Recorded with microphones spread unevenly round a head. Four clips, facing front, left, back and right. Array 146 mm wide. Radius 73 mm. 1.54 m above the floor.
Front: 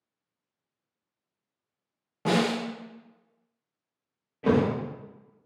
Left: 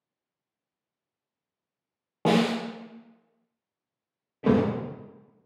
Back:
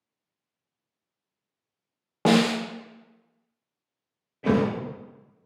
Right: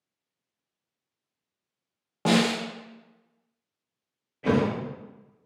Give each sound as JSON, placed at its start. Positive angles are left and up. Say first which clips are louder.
{"t": 2.2, "sound": "a snare drum", "louder": "even, back 4 dB", "azimuth_deg": 155, "distance_m": 0.5}
{"t": 4.4, "sound": "a thud", "louder": "left 1 dB, even", "azimuth_deg": 80, "distance_m": 0.9}